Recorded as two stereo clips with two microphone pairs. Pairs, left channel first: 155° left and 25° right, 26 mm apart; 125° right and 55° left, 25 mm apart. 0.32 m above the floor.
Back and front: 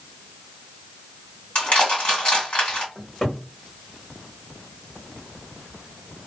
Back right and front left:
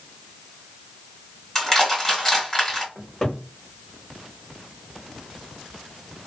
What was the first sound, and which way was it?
Crushing, 170° left.